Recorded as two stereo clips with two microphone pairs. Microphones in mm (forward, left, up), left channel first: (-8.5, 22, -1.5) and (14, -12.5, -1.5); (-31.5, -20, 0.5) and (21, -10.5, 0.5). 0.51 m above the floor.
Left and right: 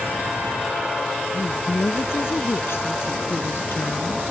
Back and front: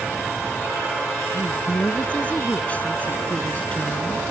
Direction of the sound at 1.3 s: 125° left.